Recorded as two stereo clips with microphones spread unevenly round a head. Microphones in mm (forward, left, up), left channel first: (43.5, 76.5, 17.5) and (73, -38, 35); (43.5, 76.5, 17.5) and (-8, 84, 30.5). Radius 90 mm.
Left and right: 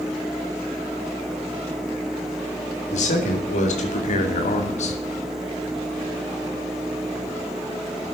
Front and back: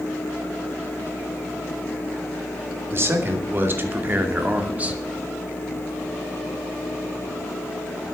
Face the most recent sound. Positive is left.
turn(degrees=105)